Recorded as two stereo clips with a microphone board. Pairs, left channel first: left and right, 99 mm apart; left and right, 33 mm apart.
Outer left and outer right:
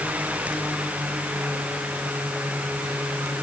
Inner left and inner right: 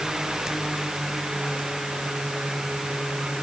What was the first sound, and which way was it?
Only background noise.